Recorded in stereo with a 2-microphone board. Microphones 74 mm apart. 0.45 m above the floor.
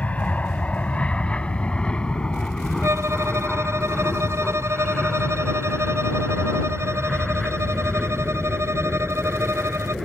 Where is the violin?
40° right (ahead or behind).